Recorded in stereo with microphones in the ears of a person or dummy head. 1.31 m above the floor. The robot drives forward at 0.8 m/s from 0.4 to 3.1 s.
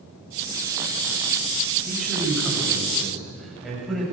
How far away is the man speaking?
About 5 m.